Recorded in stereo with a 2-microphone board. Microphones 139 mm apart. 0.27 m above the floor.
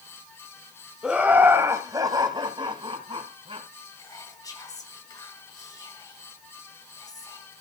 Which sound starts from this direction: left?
Whispering, at 4.0 s.